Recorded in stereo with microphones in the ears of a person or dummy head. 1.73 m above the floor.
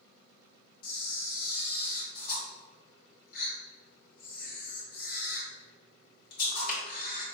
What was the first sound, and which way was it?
A camera shutter, 60° left (ahead or behind).